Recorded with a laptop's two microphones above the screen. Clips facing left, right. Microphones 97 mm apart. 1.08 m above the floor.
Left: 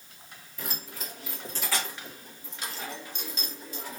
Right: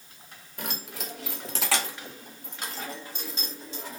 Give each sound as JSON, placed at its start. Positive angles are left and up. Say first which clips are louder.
{"t": 0.6, "sound": "keys jangling", "louder": "right 3 dB", "side_deg": -60, "distance_m": 1.0}